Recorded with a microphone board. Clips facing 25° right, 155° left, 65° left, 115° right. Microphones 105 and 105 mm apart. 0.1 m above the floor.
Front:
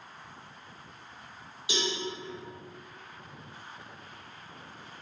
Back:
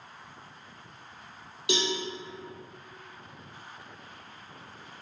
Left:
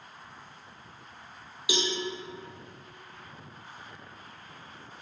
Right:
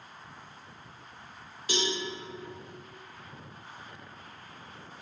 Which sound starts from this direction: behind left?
A cowbell, at 1.7 s.